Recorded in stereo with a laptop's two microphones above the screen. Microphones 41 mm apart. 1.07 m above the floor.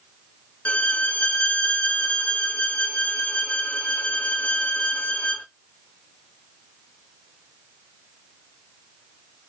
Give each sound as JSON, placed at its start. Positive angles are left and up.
{"t": 0.7, "sound": "a violin", "side_deg": 35, "distance_m": 0.5}